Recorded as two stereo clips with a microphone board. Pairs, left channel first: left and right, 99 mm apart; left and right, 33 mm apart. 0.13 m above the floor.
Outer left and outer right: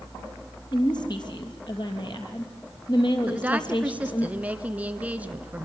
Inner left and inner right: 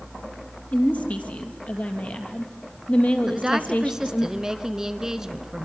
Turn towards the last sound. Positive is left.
turn(degrees=-15)  # may be behind; listen again after turning